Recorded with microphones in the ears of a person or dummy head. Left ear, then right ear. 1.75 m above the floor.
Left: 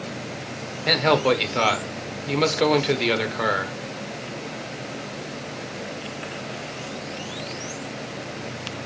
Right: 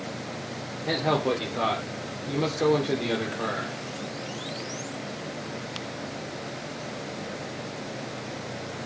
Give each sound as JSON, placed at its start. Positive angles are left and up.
{"t": 0.9, "sound": "a man speaking", "side_deg": 45, "distance_m": 1.3}